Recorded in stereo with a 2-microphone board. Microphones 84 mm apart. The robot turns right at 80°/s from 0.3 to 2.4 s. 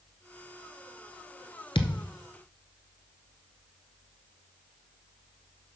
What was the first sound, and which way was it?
A thud, 80° left.